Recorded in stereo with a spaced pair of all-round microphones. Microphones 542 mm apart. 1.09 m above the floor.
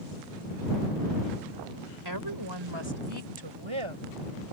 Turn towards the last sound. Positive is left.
turn(degrees=-65)  # may be behind; listen again after turning